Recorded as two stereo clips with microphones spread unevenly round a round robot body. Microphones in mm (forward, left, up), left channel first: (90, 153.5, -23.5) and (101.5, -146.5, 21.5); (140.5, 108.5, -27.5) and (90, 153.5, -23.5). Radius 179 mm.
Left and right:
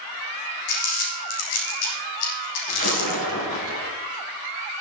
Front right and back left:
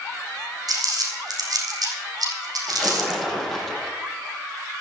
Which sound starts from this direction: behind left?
Crumpling, at 0.7 s.